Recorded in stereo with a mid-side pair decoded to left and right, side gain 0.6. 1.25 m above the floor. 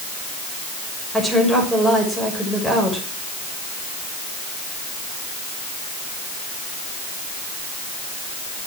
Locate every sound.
1.1 s a woman speaking: 10° left, 6.5 m